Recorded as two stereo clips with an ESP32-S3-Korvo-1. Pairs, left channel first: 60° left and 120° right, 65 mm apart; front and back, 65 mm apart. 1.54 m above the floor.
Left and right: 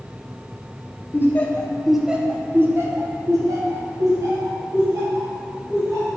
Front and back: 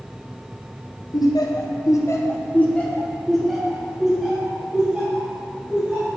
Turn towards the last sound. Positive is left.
turn(degrees=-105)